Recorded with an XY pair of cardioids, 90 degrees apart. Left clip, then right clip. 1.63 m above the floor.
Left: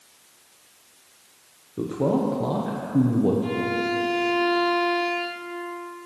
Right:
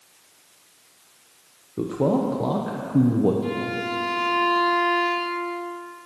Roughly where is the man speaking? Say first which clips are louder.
Right 1 dB; ahead right.